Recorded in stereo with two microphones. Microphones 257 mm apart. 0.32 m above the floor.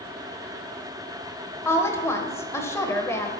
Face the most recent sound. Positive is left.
turn(degrees=10)  # may be behind; listen again after turning